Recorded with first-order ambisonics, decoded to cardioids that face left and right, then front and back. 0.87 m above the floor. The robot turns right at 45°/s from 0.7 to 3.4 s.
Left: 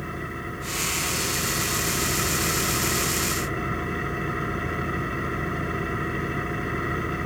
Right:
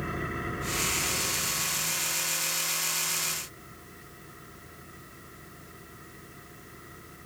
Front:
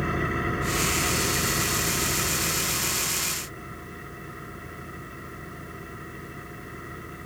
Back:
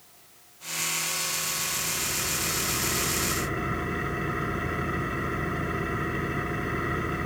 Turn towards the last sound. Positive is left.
turn(degrees=120)